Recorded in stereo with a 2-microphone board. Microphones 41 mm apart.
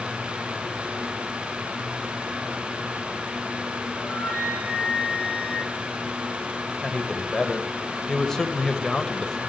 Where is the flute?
85° left, 5.5 m.